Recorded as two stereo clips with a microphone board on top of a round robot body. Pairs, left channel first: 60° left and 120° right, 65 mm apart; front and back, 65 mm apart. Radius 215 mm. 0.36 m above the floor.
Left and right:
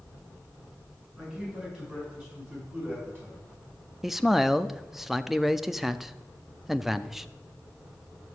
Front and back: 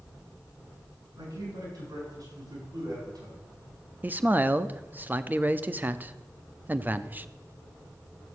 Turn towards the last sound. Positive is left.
turn(degrees=160)